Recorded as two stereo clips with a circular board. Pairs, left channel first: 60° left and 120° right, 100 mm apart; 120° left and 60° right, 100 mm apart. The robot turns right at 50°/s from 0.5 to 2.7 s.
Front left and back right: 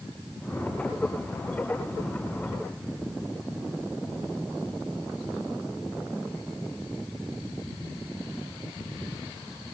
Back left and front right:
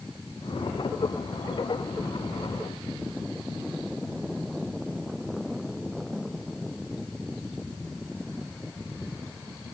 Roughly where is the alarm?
I don't hear an alarm.